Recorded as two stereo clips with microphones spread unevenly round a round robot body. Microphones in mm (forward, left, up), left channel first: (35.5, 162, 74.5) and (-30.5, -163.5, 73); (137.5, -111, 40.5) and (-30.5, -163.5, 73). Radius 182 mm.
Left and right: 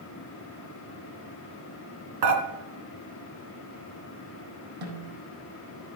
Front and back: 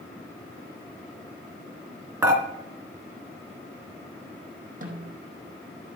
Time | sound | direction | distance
2.2 | dishes clattering | 85° right | 3.5 m
4.8 | a snare drum | 120° right | 4.5 m